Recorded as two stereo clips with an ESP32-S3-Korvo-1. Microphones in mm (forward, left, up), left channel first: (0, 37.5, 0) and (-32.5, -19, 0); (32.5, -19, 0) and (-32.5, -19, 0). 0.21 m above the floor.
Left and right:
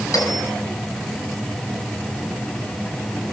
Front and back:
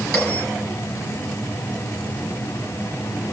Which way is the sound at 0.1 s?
70° left.